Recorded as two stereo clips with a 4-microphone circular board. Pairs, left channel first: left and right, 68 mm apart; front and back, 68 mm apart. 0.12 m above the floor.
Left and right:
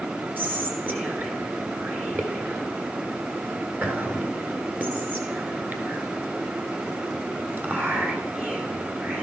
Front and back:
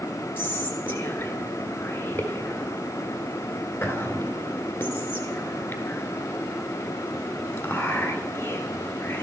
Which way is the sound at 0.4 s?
40° right.